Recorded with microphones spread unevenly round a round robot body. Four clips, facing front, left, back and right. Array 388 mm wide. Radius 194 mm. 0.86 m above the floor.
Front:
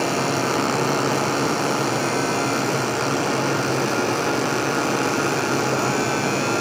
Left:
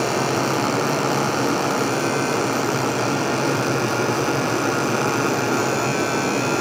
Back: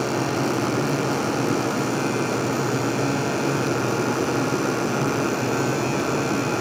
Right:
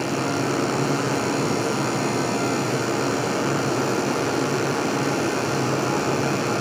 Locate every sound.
Only background noise.